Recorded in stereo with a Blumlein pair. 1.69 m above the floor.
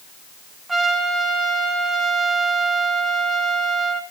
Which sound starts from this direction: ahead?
A trumpet, at 0.7 s.